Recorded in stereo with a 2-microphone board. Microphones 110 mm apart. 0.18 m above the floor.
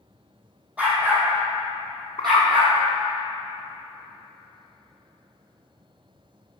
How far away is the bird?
About 0.9 m.